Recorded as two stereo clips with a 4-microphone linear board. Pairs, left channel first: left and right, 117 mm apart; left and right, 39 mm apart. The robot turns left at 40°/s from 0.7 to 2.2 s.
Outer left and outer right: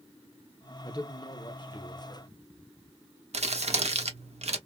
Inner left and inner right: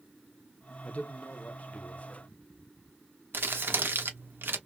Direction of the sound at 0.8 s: 120° left.